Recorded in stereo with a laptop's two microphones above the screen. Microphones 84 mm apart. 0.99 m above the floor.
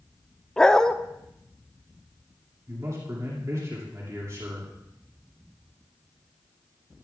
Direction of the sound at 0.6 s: 10° left (ahead or behind).